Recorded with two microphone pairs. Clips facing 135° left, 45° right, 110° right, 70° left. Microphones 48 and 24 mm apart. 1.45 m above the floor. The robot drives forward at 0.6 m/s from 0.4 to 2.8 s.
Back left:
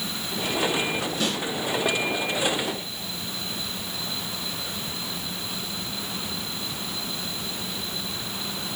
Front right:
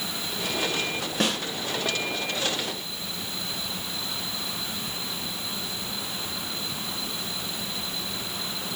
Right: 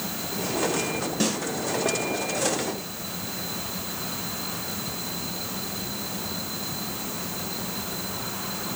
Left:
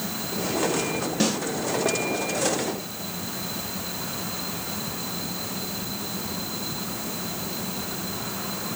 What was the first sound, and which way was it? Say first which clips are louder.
A snare drum: front right 4 dB, left 2 dB; 10° right.